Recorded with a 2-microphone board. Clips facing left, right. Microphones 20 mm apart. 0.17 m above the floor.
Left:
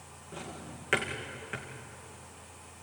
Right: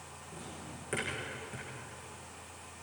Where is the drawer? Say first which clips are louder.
Left 4 dB; 60° left (ahead or behind), 4.5 m.